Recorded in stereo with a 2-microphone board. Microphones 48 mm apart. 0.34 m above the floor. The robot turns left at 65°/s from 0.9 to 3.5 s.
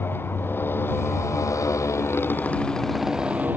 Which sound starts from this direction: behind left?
A motorcycle, at 0.0 s.